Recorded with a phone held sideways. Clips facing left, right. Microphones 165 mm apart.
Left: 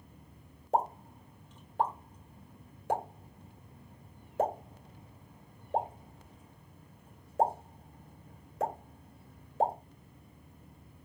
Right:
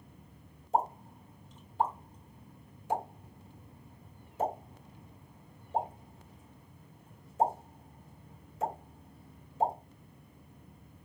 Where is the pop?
75° left (ahead or behind), 3 m.